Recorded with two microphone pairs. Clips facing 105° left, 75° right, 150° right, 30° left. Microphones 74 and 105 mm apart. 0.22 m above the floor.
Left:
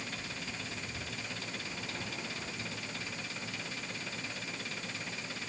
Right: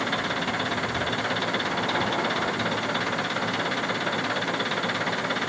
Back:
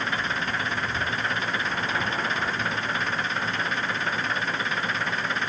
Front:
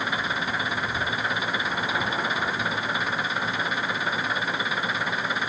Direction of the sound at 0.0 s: 50° right.